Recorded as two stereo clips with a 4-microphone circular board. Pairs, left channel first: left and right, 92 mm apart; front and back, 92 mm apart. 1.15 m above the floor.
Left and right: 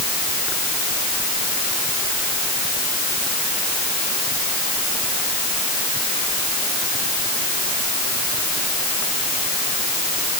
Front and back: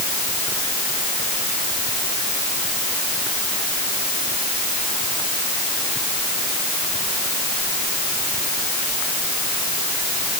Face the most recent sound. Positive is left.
No sound to turn to.